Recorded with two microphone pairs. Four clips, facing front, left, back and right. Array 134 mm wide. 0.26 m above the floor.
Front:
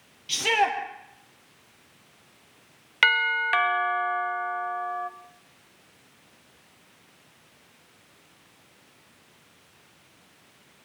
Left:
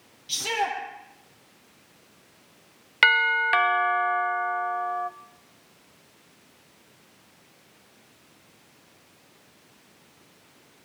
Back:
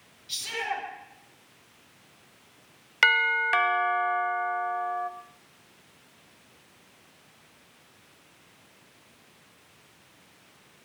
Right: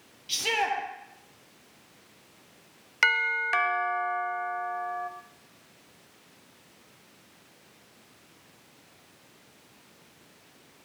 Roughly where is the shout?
Ahead.